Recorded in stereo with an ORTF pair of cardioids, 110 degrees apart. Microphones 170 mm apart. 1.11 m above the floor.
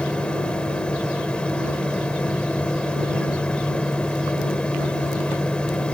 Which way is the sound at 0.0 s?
5° left.